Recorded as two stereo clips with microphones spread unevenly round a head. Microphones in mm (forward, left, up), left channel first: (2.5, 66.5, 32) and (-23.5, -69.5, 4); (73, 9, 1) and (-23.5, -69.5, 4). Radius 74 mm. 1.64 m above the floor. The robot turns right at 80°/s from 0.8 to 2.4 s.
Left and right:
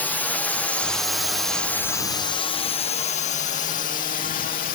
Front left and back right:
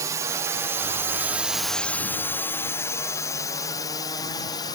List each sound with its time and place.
0.0 s a drone: 165° left; by 4.8 s 100° left